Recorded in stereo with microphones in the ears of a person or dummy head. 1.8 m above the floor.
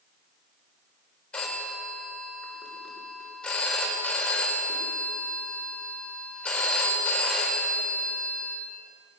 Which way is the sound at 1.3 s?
Centre (ahead or behind).